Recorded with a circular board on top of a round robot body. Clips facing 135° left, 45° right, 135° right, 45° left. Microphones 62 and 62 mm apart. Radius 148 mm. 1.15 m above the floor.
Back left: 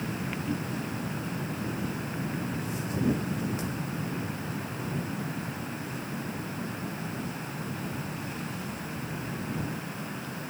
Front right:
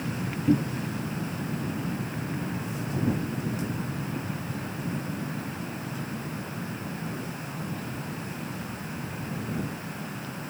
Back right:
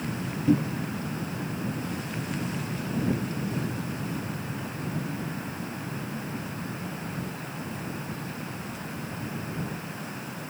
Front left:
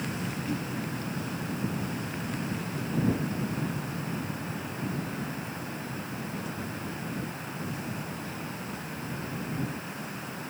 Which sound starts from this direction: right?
A cupboard door, at 0.5 s.